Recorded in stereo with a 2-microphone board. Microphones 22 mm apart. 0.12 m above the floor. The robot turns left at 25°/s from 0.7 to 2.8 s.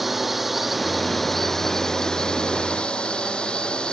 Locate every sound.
0.0 s a drone: 175° right; by 3.9 s 135° left